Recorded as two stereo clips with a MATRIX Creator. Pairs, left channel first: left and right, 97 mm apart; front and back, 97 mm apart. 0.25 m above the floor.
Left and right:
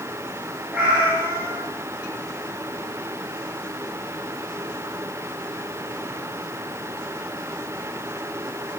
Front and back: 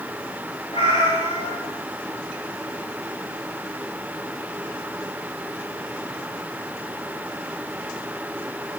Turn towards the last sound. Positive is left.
turn(degrees=-10)